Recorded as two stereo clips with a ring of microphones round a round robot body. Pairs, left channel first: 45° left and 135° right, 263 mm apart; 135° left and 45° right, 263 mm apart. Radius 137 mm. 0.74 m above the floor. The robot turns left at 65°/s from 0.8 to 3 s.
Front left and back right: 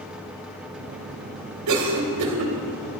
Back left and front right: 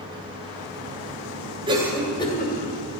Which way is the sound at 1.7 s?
115° right.